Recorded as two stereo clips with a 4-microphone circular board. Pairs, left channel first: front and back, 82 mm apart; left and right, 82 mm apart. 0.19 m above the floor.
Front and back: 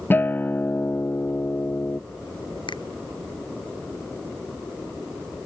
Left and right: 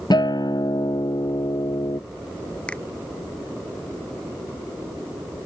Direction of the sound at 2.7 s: 15° left.